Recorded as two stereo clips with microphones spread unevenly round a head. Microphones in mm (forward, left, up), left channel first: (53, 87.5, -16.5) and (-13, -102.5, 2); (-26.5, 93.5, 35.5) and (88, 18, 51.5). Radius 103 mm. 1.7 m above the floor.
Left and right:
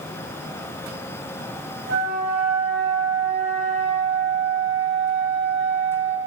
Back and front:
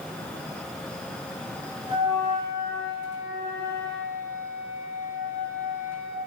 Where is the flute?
100° right, 2 m.